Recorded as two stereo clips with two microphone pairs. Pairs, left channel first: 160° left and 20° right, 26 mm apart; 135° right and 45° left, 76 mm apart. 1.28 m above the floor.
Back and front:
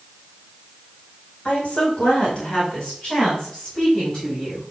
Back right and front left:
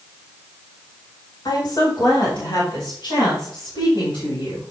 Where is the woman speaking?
165° right, 4 m; by 4.7 s 130° right, 7 m.